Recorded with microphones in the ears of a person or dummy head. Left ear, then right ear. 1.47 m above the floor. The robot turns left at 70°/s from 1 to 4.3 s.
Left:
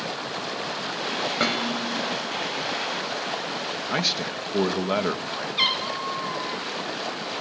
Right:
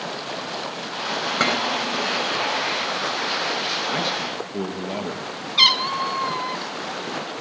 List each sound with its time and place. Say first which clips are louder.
1.4 s dishes clattering: right 6 dB; 155° right, 4.5 m; by 2.1 s 160° left, 4.5 m
3.9 s a man speaking: right 1 dB; 35° left (ahead or behind), 1.4 m; by 5.5 s 60° left (ahead or behind), 1.4 m
5.6 s a cat meowing: right 8 dB; 15° right (ahead or behind), 1.9 m